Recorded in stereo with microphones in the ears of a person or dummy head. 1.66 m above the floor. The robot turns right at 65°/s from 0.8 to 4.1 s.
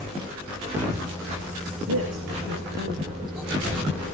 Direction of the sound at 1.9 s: 60° right (ahead or behind).